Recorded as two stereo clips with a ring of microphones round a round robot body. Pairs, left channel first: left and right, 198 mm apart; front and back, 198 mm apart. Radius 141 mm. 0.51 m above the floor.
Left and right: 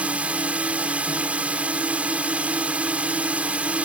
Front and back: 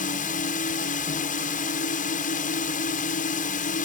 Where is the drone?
10° right.